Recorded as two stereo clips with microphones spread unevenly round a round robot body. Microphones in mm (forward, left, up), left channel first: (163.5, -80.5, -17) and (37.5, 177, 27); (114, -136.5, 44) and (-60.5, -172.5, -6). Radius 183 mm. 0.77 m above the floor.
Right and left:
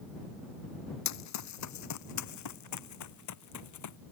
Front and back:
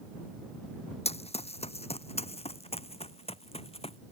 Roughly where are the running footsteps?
Ahead right.